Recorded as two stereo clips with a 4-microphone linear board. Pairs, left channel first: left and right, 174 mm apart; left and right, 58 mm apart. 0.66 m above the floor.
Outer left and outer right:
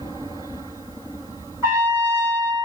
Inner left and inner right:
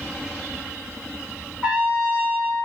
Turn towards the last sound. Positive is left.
turn(degrees=-20)  # may be behind; listen again after turning